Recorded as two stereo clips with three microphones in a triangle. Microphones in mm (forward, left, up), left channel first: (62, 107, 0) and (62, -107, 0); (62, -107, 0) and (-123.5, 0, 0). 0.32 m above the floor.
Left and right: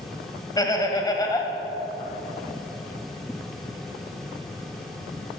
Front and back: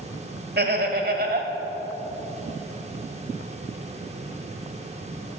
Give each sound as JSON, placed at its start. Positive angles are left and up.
{"t": 0.6, "sound": "laughter", "azimuth_deg": 155, "distance_m": 1.3}